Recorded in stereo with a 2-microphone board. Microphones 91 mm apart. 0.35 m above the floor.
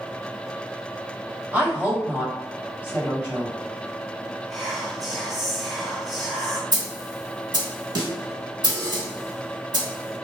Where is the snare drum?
50° right (ahead or behind), 0.8 m.